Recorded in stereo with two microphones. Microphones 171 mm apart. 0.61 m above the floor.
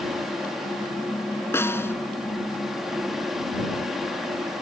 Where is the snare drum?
15° left (ahead or behind).